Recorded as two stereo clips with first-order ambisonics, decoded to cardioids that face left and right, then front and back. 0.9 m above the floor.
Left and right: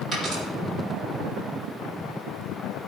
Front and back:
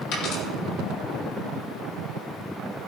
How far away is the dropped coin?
About 7 m.